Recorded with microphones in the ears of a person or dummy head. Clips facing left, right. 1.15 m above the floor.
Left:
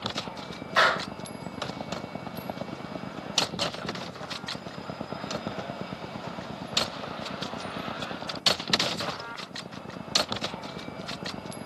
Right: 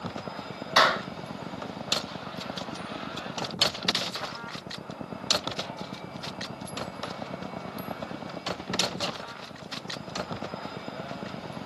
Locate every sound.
0.8 s a clap: 60° right (ahead or behind), 6.5 m